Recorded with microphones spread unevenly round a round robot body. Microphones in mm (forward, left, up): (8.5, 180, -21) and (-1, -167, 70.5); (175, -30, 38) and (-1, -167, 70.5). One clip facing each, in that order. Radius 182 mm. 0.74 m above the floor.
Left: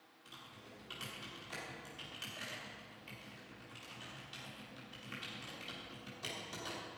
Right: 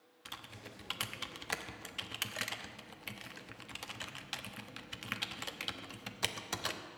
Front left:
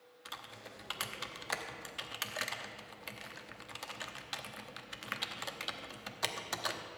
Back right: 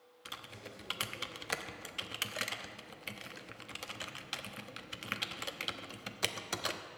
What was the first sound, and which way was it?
Typing on a keyboard, 80° right.